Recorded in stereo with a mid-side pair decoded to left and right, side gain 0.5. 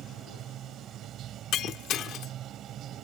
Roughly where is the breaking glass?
Ahead left.